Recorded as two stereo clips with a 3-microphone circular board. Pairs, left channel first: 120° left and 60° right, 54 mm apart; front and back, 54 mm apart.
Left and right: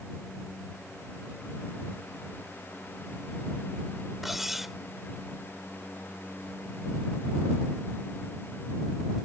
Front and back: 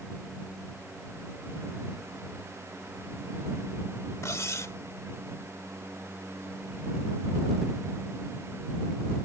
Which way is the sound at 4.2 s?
25° left.